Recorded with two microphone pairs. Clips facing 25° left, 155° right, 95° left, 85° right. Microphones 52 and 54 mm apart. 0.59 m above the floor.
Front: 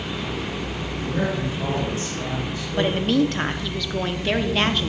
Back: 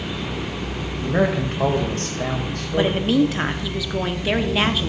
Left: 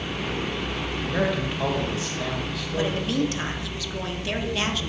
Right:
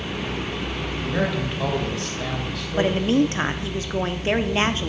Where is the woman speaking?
75° right, 1.2 m.